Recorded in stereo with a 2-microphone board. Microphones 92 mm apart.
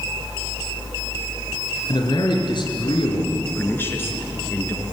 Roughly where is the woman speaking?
Left.